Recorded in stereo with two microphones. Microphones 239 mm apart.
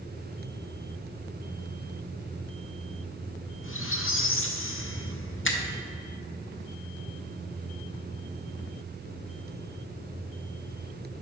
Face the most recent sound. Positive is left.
turn(degrees=55)  # may be behind; listen again after turning